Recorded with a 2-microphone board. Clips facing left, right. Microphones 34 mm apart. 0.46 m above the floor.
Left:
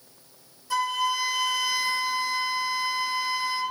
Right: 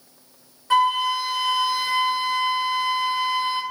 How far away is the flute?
About 1.2 m.